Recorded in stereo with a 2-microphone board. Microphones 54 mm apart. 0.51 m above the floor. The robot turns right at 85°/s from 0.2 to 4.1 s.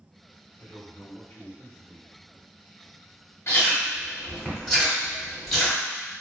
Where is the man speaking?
25° left (ahead or behind), 1.3 m; by 2.1 s 5° right (ahead or behind), 1.3 m.